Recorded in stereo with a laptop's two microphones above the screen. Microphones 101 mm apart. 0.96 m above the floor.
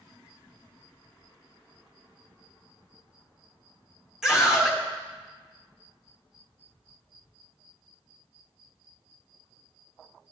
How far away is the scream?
About 1.1 m.